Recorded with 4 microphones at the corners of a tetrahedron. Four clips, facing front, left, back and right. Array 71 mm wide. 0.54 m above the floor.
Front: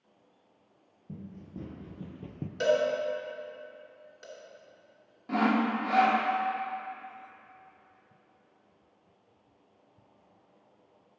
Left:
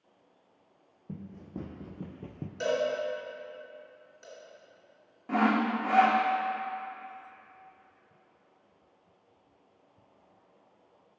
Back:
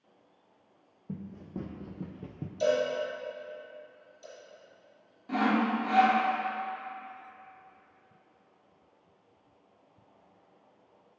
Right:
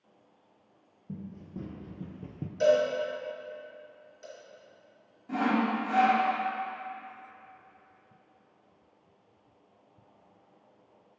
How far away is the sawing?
About 0.9 m.